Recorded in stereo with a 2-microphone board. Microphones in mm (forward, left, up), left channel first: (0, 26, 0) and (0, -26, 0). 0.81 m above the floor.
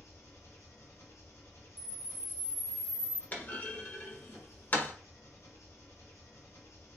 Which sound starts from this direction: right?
A camera shutter, at 1.8 s.